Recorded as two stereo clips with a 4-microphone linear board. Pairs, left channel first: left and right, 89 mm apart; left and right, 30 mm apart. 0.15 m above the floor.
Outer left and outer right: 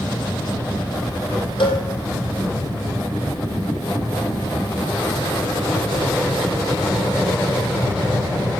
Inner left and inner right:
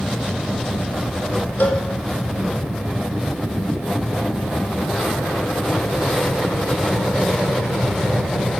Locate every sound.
1.6 s a cowbell: 70° left (ahead or behind), 4 m